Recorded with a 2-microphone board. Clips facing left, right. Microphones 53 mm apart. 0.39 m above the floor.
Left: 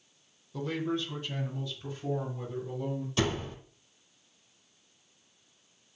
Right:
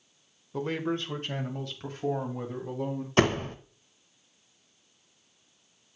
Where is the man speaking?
35° right (ahead or behind), 1.3 m; by 3.1 s 70° right (ahead or behind), 3.5 m.